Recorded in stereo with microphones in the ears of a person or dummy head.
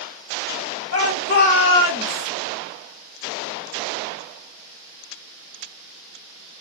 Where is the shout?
60° left (ahead or behind), 1.0 m; by 2.3 s 10° right (ahead or behind), 1.0 m.